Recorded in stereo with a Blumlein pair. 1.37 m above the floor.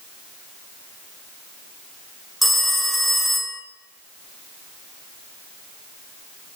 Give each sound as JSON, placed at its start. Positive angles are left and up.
{"t": 2.4, "sound": "a phone ringing", "azimuth_deg": 0, "distance_m": 0.7}